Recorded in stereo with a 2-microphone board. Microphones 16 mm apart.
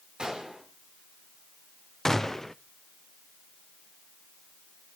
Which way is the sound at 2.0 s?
30° left (ahead or behind).